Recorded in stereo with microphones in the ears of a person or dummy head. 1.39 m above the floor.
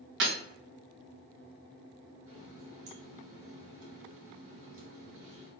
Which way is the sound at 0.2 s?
50° right (ahead or behind).